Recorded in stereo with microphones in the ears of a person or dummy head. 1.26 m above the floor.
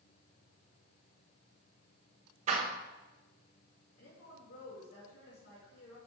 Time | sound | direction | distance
2.5 | a door slam | 35° right (ahead or behind) | 0.8 m
4.0 | a woman speaking | 65° left (ahead or behind) | 3 m